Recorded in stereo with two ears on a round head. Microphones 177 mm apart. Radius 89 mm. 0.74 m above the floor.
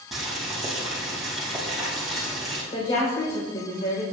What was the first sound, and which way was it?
Boiling, centre (ahead or behind).